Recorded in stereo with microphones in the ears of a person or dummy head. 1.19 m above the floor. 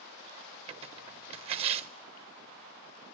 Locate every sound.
0.7 s tearing paper: 35° right (ahead or behind), 0.7 m